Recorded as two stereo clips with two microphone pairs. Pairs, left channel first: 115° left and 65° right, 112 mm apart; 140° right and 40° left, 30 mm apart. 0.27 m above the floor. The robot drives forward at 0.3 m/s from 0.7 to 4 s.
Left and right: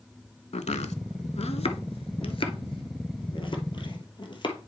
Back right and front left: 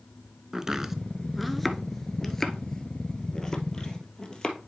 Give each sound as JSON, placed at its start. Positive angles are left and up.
{"t": 0.5, "sound": "chopping", "azimuth_deg": 120, "distance_m": 0.6}